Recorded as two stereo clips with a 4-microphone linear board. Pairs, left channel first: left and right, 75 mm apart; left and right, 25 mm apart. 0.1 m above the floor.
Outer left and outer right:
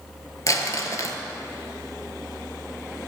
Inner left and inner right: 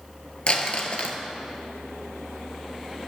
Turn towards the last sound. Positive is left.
turn(degrees=45)  # may be behind; listen again after turning